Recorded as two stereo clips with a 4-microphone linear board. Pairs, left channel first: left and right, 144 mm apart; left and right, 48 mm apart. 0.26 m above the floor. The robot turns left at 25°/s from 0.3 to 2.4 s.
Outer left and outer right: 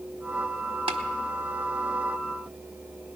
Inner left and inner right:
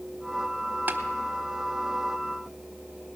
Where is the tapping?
40° right (ahead or behind), 1.2 m; by 1.0 s 35° right (ahead or behind), 1.2 m.